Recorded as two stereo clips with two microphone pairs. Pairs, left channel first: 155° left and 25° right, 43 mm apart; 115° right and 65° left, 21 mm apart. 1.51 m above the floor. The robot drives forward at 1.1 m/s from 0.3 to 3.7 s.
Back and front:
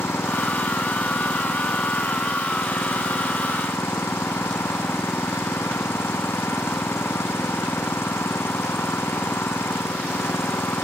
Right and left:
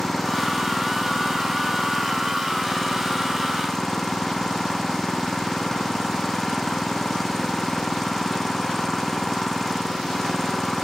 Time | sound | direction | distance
0.0 | an engine running | 165° left | ?